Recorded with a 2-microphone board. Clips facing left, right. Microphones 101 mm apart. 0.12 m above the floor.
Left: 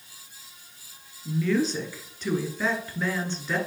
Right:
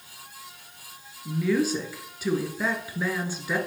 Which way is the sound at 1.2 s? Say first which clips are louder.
Right 1 dB; 10° right (ahead or behind).